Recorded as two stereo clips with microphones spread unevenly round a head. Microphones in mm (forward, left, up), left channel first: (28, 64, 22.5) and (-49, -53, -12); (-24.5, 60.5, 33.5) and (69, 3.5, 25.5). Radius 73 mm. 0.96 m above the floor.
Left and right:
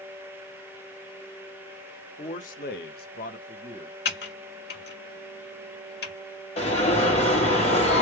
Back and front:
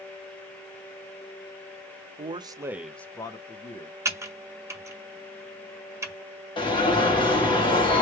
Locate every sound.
2.2 s a man speaking: straight ahead, 0.9 m; by 4.0 s 120° left, 1.2 m
4.0 s typing on a keyboard: 30° left, 1.6 m
6.6 s an alarm: 105° left, 2.0 m